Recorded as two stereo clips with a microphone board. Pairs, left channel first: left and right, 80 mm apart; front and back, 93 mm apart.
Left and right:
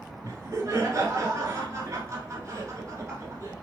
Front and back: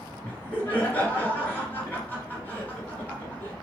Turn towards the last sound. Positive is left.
turn(degrees=-60)